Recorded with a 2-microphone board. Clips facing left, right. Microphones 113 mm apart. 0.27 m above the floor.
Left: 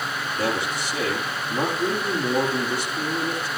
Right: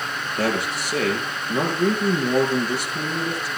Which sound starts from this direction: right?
A man speaking, at 0.4 s.